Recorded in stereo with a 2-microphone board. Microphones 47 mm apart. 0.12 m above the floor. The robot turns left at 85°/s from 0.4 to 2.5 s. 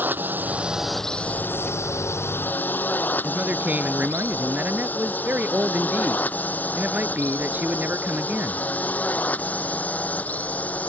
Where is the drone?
40° right (ahead or behind); by 10.9 s 30° left (ahead or behind).